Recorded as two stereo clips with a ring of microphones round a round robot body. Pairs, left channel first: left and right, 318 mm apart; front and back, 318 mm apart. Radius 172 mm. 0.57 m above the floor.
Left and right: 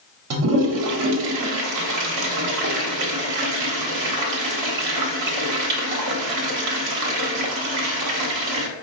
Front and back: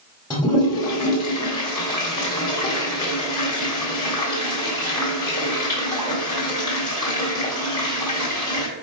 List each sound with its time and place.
0.3 s a toilet flushing: 75° right, 1.1 m